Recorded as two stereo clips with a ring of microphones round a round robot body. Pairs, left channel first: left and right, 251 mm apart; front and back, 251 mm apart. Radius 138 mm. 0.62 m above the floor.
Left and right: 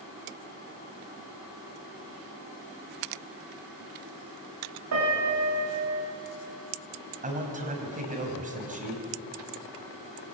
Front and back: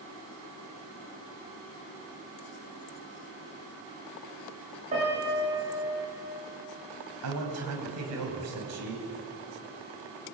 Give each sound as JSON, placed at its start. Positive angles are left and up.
{"t": 4.9, "sound": "a piano", "azimuth_deg": -110, "distance_m": 9.5}
{"t": 7.2, "sound": "a man speaking", "azimuth_deg": -150, "distance_m": 5.0}